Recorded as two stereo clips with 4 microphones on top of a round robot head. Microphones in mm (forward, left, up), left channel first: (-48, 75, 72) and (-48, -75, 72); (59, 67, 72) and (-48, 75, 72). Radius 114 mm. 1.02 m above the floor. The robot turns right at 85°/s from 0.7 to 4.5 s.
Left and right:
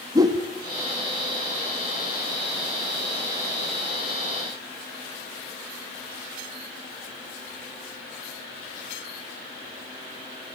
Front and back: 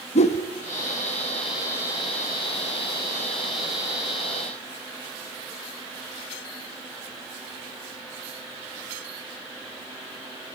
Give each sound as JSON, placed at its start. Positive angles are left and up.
{"t": 0.1, "sound": "a whoosh", "azimuth_deg": -20, "distance_m": 1.0}